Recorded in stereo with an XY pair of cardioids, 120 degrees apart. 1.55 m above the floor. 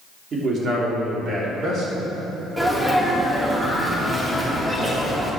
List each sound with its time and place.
0.3 s a man speaking: 40° right, 3.5 m; by 2.0 s 55° right, 4.5 m
2.6 s a sneeze: 15° right, 3.5 m